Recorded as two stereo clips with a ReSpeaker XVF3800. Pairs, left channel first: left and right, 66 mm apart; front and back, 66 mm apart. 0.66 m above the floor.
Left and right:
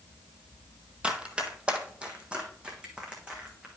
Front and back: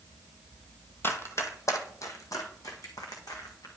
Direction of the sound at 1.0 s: 25° right.